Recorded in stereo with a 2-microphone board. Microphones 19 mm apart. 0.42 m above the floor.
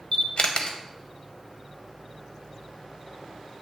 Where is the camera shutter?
45° left (ahead or behind), 0.7 m.